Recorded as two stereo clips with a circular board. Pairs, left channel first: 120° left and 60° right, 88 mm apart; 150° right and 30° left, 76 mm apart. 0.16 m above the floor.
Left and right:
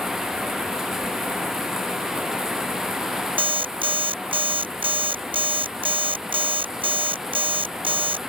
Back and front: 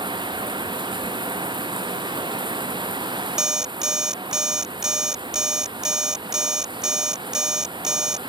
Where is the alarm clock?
55° right.